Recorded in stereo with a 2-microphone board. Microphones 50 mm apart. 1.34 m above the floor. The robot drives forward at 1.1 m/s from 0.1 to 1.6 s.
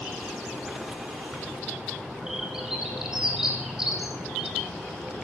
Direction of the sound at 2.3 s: 10° right (ahead or behind).